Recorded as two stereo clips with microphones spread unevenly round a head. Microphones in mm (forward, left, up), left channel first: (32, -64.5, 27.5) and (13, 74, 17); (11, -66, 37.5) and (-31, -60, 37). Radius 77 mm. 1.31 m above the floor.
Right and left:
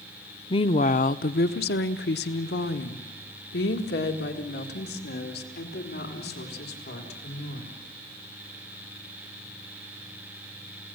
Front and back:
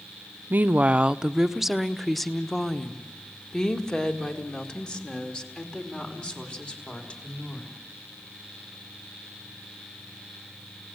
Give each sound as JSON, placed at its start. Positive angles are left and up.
{"t": 0.5, "sound": "a woman speaking", "azimuth_deg": -145, "distance_m": 0.6}